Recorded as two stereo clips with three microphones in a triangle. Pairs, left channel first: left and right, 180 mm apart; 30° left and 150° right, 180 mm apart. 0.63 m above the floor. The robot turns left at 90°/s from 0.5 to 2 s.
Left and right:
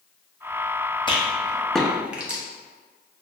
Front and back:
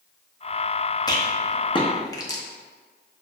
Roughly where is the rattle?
Left.